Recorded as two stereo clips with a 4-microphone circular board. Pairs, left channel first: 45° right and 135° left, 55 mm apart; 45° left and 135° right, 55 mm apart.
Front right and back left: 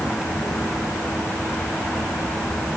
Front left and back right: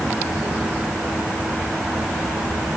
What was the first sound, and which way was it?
Only background noise.